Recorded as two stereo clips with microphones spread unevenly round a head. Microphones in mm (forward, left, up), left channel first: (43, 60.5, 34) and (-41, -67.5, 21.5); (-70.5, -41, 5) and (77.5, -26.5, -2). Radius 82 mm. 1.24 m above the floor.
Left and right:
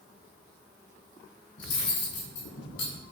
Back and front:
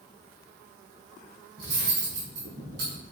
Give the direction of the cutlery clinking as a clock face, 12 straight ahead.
10 o'clock.